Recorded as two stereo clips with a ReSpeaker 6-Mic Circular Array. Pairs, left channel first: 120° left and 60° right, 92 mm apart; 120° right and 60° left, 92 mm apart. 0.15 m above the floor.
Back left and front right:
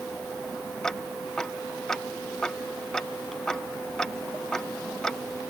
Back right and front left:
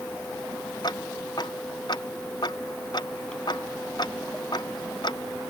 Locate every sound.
0.8 s ticking: 155° right